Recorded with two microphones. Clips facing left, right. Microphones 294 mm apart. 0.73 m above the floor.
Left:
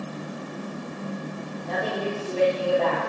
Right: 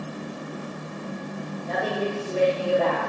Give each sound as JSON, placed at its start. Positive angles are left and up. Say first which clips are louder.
{"t": 1.6, "sound": "a woman speaking", "louder": "right 1 dB", "side_deg": -30, "distance_m": 1.5}